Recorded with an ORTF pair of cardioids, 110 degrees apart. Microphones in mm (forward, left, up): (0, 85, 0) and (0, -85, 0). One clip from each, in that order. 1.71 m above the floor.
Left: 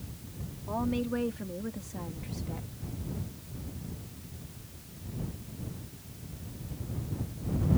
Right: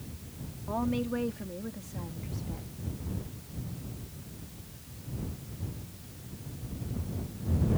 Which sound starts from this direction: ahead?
A woman speaking, at 0.7 s.